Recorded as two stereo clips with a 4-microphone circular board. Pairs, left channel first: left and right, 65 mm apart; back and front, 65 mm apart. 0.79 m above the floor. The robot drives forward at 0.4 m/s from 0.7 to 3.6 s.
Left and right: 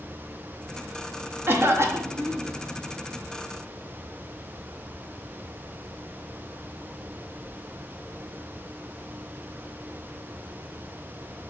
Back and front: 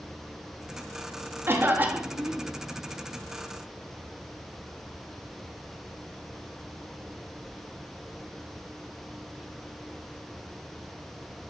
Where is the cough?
45° right, 0.9 m; by 2.5 s 75° right, 0.8 m.